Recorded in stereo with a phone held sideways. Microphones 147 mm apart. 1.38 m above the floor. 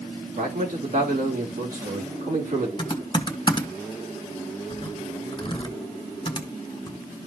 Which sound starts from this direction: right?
A man speaking, at 0.4 s.